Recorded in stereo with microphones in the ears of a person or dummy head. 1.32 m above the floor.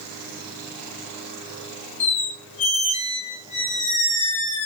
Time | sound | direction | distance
2.0 | a squeak | 35° left (ahead or behind) | 0.8 m